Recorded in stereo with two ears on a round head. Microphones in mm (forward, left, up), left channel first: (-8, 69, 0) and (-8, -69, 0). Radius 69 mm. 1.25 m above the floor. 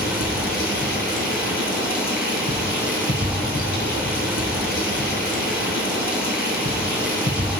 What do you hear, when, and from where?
0.0 s running water: 60° left (ahead or behind), 7 m